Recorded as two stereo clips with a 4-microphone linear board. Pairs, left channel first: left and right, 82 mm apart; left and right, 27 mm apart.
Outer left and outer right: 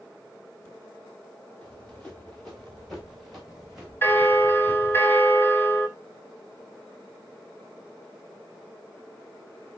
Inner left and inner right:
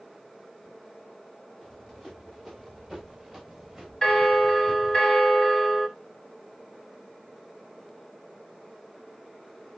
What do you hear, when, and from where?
1.6 s running footsteps: 10° left (ahead or behind), 5.5 m; by 5.0 s 15° right (ahead or behind), 5.5 m
4.0 s a bell: 25° left (ahead or behind), 2.0 m